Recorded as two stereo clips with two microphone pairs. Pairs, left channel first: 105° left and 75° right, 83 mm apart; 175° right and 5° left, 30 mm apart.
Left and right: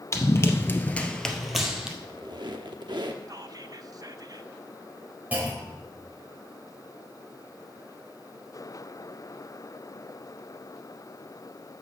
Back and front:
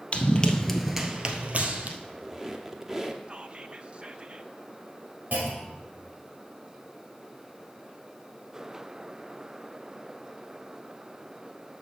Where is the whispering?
45° right, 0.6 m.